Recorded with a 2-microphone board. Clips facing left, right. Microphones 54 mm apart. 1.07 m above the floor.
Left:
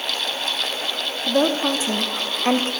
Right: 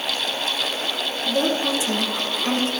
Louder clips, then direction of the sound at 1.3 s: Left 3 dB; 35° left (ahead or behind).